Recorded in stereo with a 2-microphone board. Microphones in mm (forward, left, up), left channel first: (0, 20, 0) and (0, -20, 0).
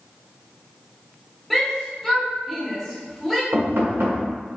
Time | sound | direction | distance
1.5 | a shout | 5° left (ahead or behind) | 1.6 m
3.5 | knocking | 70° right (ahead or behind) | 1.7 m